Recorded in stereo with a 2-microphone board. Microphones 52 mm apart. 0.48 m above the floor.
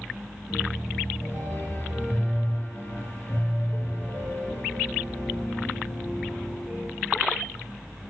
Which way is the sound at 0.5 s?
45° left (ahead or behind).